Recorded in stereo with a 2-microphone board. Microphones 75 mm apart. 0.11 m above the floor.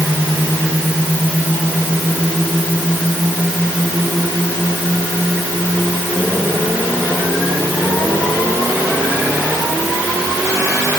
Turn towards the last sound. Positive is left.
No sound to turn to.